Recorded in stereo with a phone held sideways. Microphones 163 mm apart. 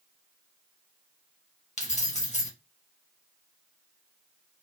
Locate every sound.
1.8 s keys jangling: 45° left (ahead or behind), 1.2 m